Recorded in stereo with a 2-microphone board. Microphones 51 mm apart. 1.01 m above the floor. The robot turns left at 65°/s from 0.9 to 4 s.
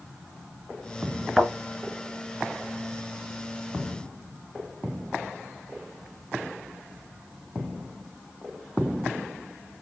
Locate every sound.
1.4 s a thud: 20° right (ahead or behind), 1.9 m; by 1.5 s 10° right (ahead or behind), 1.9 m